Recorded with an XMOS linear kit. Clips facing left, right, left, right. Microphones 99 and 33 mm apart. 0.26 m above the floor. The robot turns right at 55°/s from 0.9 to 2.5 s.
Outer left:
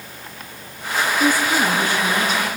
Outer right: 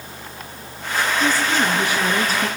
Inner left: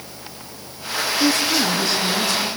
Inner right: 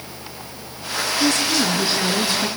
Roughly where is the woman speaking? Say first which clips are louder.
Outer left 3 dB, even; behind.